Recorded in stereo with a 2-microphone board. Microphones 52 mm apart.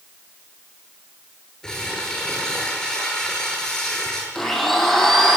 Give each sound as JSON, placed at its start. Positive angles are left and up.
{"t": 1.6, "sound": "crumpling", "side_deg": 10, "distance_m": 8.5}
{"t": 4.3, "sound": "a blender", "side_deg": 5, "distance_m": 6.5}